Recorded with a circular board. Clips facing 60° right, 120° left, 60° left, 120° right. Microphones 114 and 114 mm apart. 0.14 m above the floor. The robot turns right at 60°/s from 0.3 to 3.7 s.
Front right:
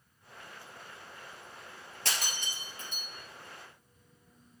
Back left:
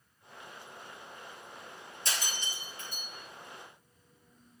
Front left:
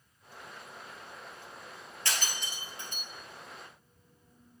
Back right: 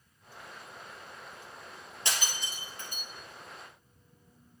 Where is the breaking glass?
55° right, 2 m; by 3.0 s 5° left, 2 m.